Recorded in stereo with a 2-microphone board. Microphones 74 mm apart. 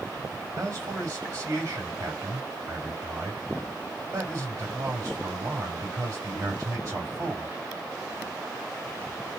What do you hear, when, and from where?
0.6 s a man speaking: 40° right (ahead or behind), 3 m